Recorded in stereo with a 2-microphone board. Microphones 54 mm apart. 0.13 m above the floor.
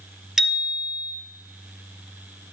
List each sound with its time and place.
0.4 s a bicycle bell: 5° right (ahead or behind), 2.5 m